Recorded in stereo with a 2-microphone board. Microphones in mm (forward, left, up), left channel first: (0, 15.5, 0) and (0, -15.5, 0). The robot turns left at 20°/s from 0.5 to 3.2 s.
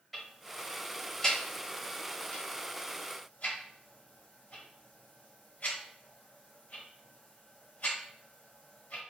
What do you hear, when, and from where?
0.1 s ticking: 5° left (ahead or behind), 1.3 m; by 9.0 s 55° left (ahead or behind), 1.3 m